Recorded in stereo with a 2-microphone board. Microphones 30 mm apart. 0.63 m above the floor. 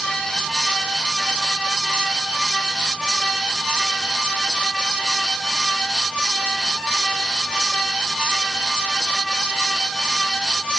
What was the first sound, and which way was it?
Only background noise.